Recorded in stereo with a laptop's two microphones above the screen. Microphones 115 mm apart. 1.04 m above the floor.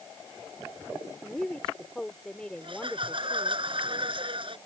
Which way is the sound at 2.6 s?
45° right (ahead or behind).